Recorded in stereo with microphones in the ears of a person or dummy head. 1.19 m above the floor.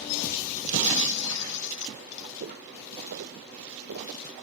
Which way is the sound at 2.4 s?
55° right (ahead or behind).